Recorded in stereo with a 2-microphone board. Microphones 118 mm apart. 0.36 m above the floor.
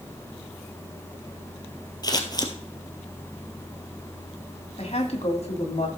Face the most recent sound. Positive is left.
turn(degrees=65)  # may be behind; listen again after turning